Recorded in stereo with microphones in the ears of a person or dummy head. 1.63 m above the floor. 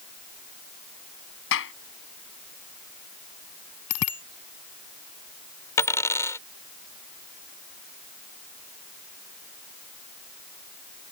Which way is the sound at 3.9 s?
85° left.